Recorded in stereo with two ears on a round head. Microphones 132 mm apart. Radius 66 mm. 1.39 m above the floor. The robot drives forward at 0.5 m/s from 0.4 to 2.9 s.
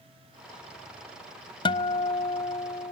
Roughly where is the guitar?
Left.